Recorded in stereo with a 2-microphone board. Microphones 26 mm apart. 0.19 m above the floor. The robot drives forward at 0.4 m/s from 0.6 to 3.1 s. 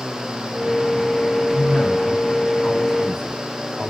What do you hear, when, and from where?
1.5 s a man speaking: 40° left (ahead or behind), 2.5 m; by 3.9 s 35° left (ahead or behind), 2.5 m